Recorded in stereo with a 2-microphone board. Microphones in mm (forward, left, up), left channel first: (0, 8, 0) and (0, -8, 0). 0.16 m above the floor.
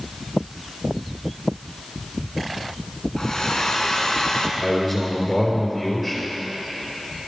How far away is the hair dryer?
About 0.9 m.